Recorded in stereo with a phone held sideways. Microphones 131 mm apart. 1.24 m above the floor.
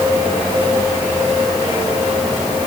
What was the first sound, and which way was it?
Only background noise.